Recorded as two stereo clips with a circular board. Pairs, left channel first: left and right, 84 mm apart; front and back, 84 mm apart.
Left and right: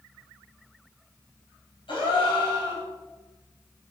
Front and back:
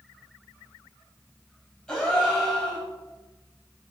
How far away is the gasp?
About 6 m.